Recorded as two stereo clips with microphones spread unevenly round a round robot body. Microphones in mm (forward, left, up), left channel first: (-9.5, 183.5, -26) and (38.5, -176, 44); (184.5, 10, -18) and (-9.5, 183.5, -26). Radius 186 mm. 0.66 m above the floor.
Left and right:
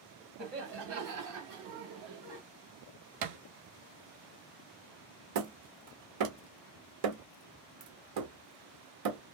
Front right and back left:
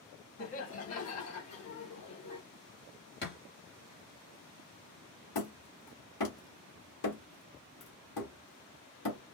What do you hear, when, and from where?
0.4 s laughter: 15° right, 1.4 m; by 2.4 s 65° right, 1.7 m
3.2 s a thud: 100° right, 0.9 m
5.3 s hammering: 75° right, 1.2 m